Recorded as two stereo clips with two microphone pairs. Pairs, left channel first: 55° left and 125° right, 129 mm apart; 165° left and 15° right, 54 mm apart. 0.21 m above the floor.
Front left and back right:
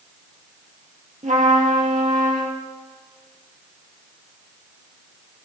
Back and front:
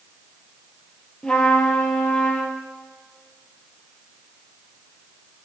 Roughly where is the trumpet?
Behind right.